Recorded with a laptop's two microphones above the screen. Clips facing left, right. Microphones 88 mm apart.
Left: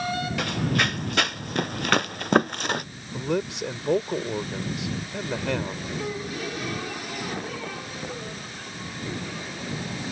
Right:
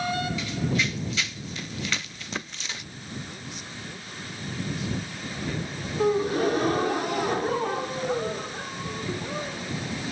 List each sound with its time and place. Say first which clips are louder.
0.4 s running footsteps: left 2 dB; 55° left (ahead or behind); by 2.9 s 50° left (ahead or behind)
3.1 s a man speaking: left 14 dB; 75° left (ahead or behind)
6.0 s a gasp: right 13 dB; 40° right (ahead or behind)